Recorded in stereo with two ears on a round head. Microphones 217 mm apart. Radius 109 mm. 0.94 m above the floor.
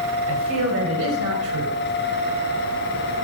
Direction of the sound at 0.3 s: 65° right (ahead or behind).